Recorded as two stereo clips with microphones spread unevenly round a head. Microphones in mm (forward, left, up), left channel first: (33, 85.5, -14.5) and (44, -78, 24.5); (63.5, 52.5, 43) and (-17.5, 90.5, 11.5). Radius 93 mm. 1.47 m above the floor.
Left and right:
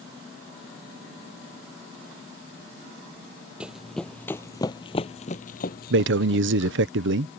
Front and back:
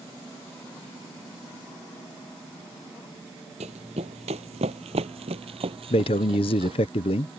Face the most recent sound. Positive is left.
turn(degrees=-75)